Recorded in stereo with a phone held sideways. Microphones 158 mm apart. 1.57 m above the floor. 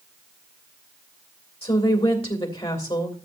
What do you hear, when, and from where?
1.6 s a woman speaking: 35° left (ahead or behind), 2.5 m